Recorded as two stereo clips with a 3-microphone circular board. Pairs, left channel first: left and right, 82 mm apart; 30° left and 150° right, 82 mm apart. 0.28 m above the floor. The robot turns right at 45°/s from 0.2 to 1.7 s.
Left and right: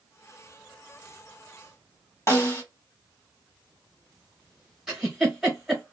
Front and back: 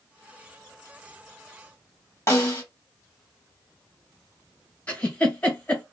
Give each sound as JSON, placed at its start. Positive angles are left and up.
{"t": 2.3, "sound": "a snare drum", "azimuth_deg": 55, "distance_m": 1.1}
{"t": 4.9, "sound": "a giggle", "azimuth_deg": -15, "distance_m": 1.2}